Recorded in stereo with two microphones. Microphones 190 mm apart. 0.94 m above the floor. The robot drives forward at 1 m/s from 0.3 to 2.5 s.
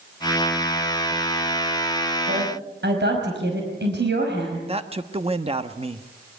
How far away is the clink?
No clink in this recording.